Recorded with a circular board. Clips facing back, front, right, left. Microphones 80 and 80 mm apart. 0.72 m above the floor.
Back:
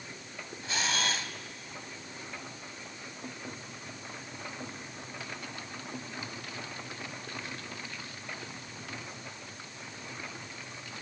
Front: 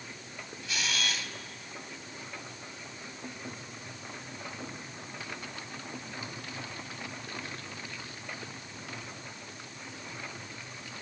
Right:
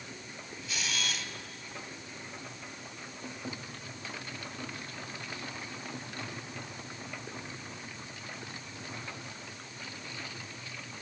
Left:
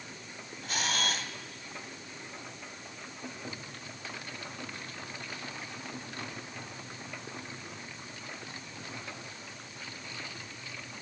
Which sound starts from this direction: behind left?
A camera shutter, at 0.6 s.